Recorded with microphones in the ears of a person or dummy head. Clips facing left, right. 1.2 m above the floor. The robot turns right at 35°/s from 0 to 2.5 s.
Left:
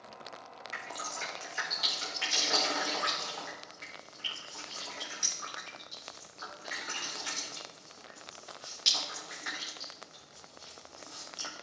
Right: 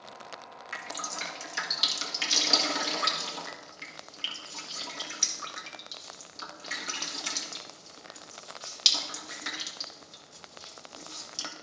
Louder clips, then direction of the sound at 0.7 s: Right 2 dB; 70° right (ahead or behind).